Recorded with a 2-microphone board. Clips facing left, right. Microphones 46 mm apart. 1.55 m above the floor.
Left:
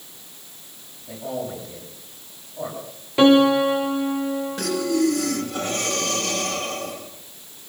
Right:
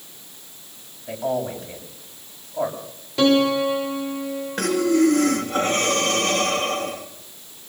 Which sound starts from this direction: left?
A piano, at 3.2 s.